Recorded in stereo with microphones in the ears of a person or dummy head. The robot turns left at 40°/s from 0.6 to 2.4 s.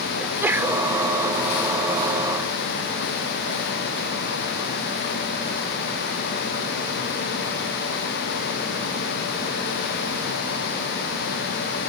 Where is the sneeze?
10° right (ahead or behind); by 0.9 s 5° left (ahead or behind).